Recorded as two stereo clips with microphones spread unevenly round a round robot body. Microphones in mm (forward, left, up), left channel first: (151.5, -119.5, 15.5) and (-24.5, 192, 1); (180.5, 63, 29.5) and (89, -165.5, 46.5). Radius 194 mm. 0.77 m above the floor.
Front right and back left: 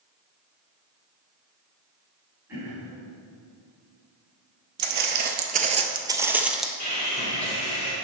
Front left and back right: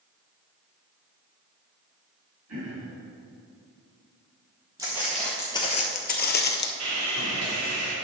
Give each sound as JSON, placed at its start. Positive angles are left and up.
{"t": 2.5, "sound": "throat clearing", "azimuth_deg": -155, "distance_m": 3.0}
{"t": 4.8, "sound": "footsteps", "azimuth_deg": 175, "distance_m": 1.0}
{"t": 6.8, "sound": "sawing", "azimuth_deg": -125, "distance_m": 2.5}